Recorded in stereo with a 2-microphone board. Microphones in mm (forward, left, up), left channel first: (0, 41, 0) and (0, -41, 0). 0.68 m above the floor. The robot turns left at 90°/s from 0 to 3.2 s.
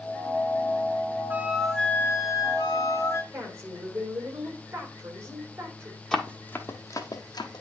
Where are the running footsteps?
5° left (ahead or behind), 1.0 m; by 7.6 s 60° left (ahead or behind), 1.3 m.